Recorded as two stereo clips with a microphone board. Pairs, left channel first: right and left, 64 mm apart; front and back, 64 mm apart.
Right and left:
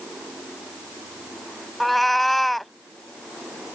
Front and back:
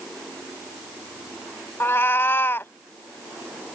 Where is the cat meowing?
5° right.